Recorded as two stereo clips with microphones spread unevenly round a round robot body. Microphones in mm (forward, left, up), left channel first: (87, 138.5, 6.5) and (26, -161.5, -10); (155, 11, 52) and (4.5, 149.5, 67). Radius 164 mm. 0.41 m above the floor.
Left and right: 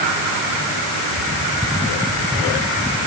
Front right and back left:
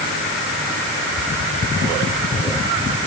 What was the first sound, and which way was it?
Only background noise.